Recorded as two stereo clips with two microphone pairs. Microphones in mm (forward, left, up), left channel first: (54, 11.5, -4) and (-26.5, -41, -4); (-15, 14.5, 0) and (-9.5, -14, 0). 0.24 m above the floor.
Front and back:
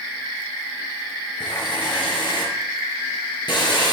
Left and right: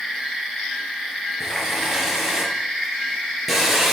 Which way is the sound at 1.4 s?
Straight ahead.